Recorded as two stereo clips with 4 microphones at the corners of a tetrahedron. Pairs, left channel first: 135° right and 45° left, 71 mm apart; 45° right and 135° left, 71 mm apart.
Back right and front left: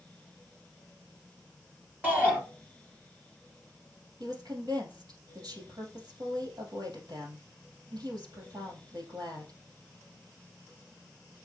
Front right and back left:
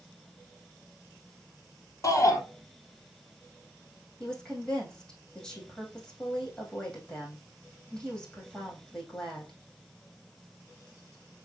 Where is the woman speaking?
35° left, 3.5 m.